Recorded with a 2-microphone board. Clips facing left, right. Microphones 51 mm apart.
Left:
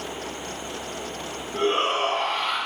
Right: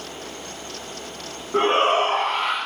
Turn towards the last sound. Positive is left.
turn(degrees=-40)  # may be behind; listen again after turning